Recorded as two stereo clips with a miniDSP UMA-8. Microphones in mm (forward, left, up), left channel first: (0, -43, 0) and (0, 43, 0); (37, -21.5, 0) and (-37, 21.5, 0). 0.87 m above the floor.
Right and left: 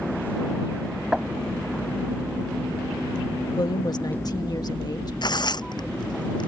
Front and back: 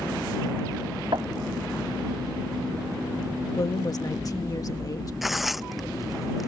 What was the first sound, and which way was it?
Knocking, 170° left.